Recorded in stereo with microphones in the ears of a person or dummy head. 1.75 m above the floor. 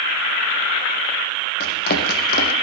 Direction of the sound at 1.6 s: 55° left (ahead or behind).